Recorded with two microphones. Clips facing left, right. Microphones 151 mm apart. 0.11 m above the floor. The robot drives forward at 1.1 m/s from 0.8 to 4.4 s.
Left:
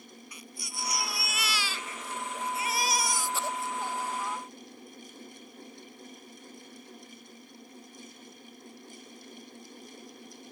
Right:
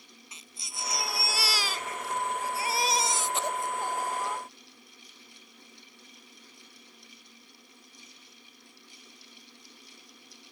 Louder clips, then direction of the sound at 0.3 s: Left 2 dB; 25° right (ahead or behind).